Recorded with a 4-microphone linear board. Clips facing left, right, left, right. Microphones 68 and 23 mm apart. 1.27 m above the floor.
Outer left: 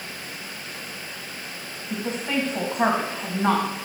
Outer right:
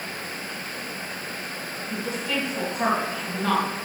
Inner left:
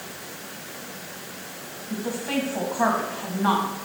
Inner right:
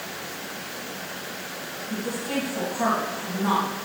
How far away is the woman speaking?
About 1.8 m.